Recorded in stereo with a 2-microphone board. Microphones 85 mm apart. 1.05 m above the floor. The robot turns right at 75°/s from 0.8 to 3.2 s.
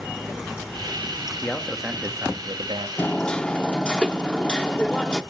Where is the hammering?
25° left (ahead or behind), 0.7 m; by 5.2 s 15° left (ahead or behind), 0.7 m.